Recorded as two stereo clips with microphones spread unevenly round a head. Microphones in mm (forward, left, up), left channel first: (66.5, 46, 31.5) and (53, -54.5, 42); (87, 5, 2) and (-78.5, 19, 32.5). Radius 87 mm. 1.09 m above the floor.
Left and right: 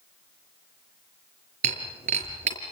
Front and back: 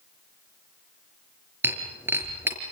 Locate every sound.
1.6 s breaking glass: 110° right, 5 m